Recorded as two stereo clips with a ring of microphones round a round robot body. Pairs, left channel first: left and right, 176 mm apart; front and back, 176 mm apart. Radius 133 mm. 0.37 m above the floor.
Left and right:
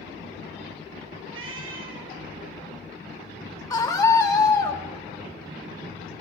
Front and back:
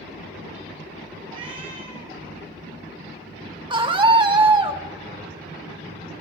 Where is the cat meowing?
110° right, 2 m.